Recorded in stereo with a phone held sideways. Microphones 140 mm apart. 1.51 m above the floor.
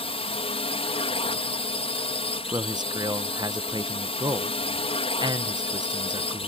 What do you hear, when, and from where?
0.0 s a drone: 45° left (ahead or behind)
2.5 s a man speaking: 30° right (ahead or behind)